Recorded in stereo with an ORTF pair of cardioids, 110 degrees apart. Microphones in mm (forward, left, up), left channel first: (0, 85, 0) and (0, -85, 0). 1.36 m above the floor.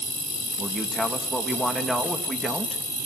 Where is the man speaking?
Straight ahead, 2.5 m.